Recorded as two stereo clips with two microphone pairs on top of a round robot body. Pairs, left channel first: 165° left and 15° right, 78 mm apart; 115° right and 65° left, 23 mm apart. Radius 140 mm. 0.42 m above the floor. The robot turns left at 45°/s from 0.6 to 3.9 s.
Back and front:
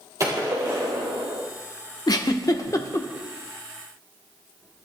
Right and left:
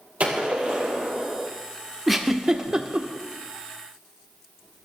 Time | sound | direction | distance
0.2 | a gunshot | 35° left | 4.5 m
2.1 | a giggle | 155° left | 1.7 m